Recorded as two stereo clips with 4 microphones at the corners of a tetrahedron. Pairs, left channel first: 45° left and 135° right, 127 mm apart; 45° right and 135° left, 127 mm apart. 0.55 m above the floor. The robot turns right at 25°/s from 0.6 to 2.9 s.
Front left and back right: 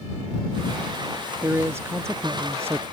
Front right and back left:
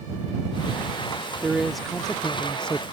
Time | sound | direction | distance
1.4 | a man speaking | 145° right | ?